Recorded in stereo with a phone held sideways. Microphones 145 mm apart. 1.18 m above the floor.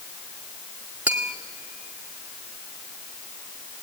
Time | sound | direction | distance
1.1 | tapping | 10° right (ahead or behind) | 1.7 m